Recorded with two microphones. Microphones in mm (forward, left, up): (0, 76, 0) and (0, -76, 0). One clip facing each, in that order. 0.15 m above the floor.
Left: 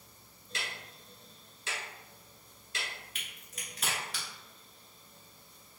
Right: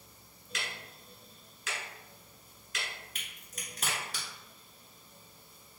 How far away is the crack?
About 1.3 m.